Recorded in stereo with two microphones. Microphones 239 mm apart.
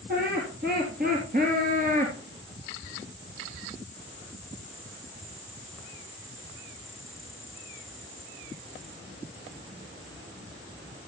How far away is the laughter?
About 3.5 m.